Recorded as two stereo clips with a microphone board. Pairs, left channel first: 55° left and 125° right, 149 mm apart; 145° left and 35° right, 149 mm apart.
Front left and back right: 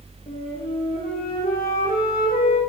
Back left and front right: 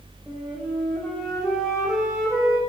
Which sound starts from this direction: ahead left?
A flute, at 0.3 s.